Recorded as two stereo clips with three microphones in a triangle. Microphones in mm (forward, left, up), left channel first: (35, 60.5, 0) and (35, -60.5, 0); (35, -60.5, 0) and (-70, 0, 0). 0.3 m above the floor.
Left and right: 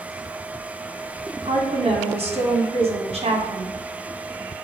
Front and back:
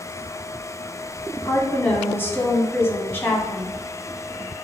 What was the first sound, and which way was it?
A woman speaking, 100° right.